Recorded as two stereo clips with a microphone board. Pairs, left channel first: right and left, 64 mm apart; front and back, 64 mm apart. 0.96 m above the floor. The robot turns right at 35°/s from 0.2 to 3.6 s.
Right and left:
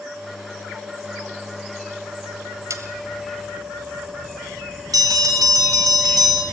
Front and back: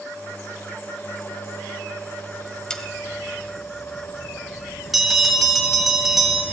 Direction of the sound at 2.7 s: 80° left.